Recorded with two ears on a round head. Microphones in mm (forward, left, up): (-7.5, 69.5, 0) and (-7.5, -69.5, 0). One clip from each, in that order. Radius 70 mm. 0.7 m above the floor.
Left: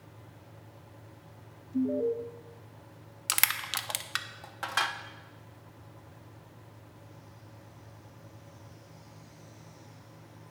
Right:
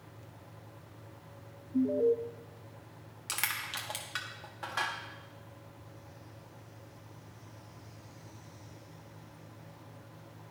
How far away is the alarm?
About 0.6 m.